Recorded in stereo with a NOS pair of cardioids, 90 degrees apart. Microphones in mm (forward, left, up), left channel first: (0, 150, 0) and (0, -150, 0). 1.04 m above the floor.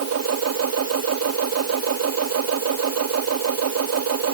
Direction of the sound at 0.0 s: 55° right.